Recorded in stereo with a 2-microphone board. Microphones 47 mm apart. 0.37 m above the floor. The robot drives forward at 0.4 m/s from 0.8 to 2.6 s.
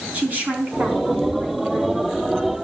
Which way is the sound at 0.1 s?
35° right (ahead or behind).